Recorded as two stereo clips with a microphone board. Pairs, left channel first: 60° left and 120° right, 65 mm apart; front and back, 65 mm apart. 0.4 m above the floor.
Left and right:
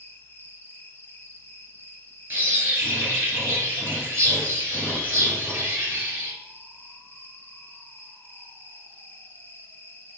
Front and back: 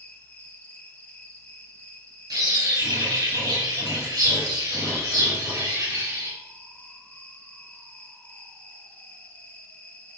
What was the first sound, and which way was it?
An insect, 40° left.